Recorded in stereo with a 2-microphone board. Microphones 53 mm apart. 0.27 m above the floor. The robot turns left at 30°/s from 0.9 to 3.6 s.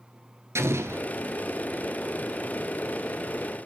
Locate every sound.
0.6 s an explosion: 60° right (ahead or behind), 1.3 m; by 1.1 s 55° right (ahead or behind), 1.3 m